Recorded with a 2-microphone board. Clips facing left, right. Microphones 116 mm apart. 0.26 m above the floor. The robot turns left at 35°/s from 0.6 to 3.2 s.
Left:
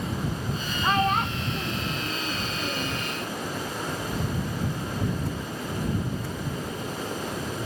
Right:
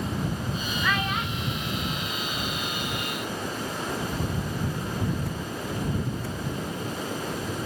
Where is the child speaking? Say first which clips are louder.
Left 6 dB; 30° left (ahead or behind); by 3.0 s 75° left (ahead or behind).